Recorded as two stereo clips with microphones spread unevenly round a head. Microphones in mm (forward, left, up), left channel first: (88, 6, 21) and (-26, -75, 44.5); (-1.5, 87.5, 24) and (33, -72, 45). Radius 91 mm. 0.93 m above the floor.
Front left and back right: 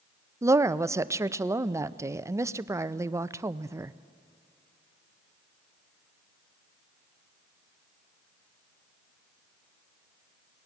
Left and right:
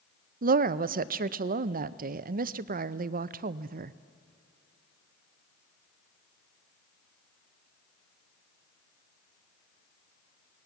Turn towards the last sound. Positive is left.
turn(degrees=-70)